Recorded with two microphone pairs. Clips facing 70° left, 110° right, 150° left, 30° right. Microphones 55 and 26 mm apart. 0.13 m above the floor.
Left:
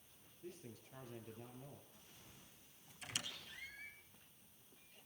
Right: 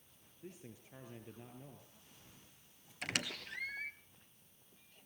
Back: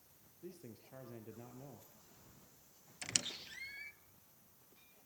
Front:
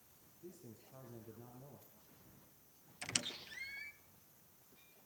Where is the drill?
I don't hear a drill.